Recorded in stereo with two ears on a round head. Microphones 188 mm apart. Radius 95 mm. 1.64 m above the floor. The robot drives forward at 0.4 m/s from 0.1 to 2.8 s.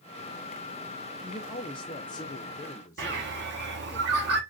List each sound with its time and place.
1.2 s a man speaking: 25° left (ahead or behind), 0.5 m; by 4.0 s 15° left (ahead or behind), 0.8 m
3.0 s a bird: 60° right (ahead or behind), 0.9 m